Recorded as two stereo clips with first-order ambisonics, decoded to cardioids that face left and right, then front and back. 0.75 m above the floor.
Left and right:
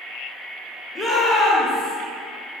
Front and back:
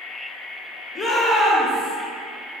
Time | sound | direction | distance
0.9 | a shout | 40° left | 0.8 m